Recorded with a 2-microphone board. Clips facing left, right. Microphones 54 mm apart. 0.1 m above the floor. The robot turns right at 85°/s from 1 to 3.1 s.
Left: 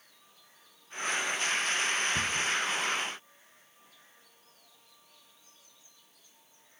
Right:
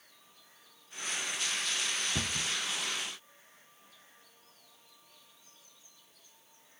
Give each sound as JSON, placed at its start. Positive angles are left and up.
{"t": 2.1, "sound": "a cupboard door", "side_deg": -55, "distance_m": 0.8}